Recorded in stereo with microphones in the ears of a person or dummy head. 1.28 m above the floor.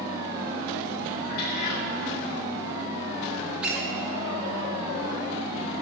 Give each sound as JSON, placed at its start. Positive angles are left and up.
{"t": 1.2, "sound": "a cat meowing", "side_deg": 55, "distance_m": 0.9}
{"t": 3.6, "sound": "a squeak", "side_deg": -10, "distance_m": 1.1}